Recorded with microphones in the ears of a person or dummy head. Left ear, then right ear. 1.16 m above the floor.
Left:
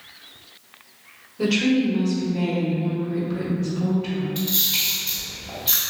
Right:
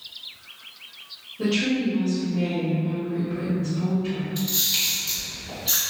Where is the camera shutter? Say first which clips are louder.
Left 1 dB; 30° left (ahead or behind), 1.9 m.